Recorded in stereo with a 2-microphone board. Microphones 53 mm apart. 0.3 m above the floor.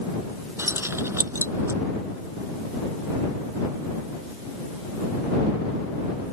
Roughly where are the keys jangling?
Right.